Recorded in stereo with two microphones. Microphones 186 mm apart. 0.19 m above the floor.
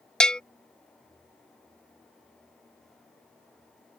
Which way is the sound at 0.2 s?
5° left (ahead or behind).